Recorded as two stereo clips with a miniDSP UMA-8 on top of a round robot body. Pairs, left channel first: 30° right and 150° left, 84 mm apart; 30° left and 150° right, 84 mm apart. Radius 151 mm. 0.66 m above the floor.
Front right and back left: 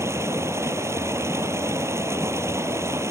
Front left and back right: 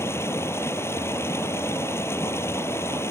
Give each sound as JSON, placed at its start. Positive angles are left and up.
{"t": 0.0, "sound": "running water", "azimuth_deg": 90}